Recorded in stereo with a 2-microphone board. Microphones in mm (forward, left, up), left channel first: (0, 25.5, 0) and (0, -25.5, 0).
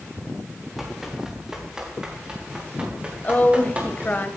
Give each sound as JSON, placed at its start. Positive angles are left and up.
{"t": 0.8, "sound": "running footsteps", "side_deg": -5, "distance_m": 8.0}
{"t": 3.2, "sound": "a woman speaking", "side_deg": 35, "distance_m": 2.5}